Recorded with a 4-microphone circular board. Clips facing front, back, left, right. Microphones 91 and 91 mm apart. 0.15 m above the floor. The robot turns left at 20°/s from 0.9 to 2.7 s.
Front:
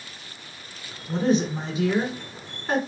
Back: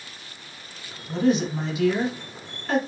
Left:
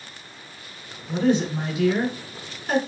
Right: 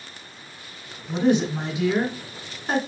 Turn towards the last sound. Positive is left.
turn(degrees=-55)